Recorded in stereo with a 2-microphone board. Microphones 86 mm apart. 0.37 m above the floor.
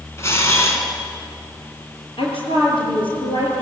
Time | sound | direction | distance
0.2 | a camera shutter | 30° left (ahead or behind) | 3.5 m
2.2 | a woman speaking | 80° left | 8 m